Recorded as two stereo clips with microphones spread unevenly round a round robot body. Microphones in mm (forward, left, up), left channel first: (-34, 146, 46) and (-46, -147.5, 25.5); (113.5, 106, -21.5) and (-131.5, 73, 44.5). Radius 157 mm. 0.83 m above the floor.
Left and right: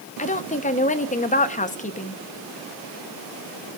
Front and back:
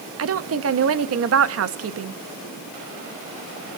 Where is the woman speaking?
155° left, 1.0 m.